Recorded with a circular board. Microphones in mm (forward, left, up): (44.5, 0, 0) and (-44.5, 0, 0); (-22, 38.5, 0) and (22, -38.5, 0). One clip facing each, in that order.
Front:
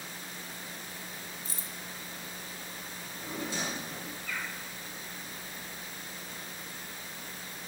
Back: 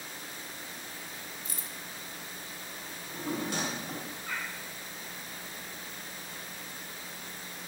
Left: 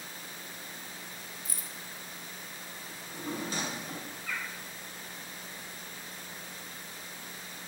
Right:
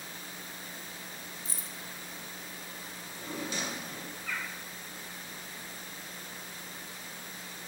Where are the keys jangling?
20° right, 0.6 m.